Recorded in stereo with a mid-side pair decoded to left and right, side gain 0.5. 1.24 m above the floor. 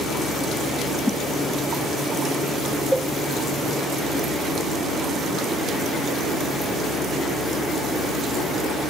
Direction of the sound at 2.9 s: 5° right.